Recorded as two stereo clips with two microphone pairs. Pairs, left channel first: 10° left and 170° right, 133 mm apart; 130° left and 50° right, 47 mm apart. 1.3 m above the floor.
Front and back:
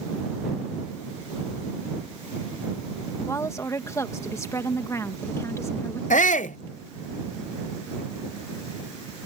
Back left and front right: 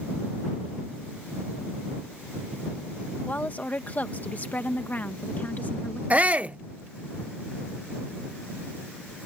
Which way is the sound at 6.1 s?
10° left.